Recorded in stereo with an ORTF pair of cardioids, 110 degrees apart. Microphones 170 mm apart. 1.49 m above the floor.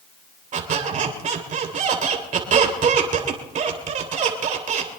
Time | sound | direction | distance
0.5 | a squeak | 50° right | 3 m